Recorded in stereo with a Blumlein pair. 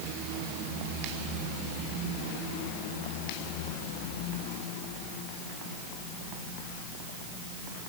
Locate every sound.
Only background noise.